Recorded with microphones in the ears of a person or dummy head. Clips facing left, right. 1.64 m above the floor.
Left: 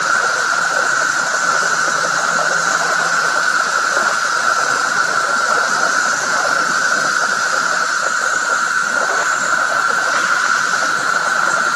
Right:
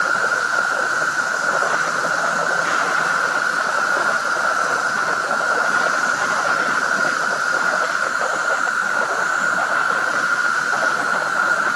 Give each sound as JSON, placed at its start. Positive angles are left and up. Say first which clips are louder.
{"t": 0.0, "sound": "an insect", "louder": "left 2 dB", "side_deg": 65, "distance_m": 3.5}